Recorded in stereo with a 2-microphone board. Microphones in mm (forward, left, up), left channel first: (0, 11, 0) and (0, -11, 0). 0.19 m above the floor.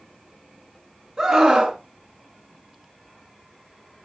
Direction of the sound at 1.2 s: 35° right (ahead or behind).